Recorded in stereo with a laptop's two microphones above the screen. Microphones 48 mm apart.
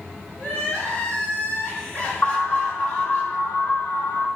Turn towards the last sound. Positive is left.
turn(degrees=55)  # may be behind; listen again after turning